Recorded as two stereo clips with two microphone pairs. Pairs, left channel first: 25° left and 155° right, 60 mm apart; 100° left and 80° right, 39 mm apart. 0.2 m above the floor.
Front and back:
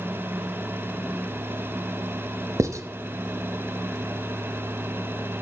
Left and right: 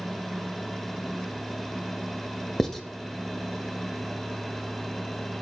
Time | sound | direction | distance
2.6 | writing | straight behind | 0.6 m